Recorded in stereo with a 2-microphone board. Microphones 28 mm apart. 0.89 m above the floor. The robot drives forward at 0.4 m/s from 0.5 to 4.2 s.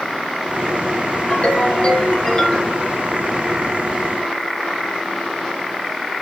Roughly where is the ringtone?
Left.